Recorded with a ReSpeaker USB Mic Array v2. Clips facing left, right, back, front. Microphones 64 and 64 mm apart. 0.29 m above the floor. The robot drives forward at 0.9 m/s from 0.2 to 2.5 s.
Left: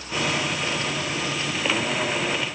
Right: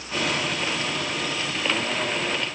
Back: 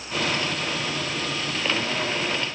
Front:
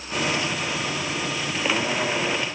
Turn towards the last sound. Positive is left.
No sound to turn to.